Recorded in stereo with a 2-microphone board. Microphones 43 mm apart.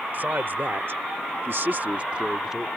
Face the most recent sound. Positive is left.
turn(degrees=-10)  # may be behind; listen again after turning